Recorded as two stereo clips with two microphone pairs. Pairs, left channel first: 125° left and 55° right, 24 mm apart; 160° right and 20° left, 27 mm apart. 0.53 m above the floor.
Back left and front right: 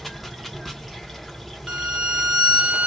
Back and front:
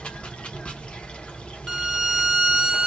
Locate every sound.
0.0 s running water: 150° right, 0.9 m
1.7 s a violin: 60° right, 1.1 m